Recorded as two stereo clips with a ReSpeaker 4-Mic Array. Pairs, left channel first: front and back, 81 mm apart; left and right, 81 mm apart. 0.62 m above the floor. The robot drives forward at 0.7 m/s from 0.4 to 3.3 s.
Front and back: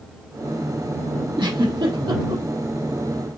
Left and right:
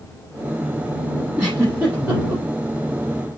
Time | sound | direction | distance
1.4 | a giggle | 165° right | 6 m